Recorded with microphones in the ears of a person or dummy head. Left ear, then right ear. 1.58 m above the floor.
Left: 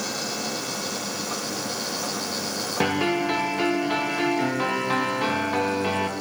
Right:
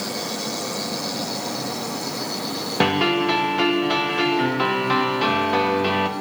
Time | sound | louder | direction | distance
2.8 | a piano | right 5 dB | 20° right (ahead or behind) | 1.1 m